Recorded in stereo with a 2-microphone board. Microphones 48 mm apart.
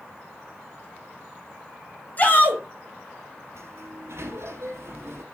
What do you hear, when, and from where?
2.2 s a shout: 35° left (ahead or behind), 1.9 m
3.5 s a sliding door: 70° right (ahead or behind), 2.5 m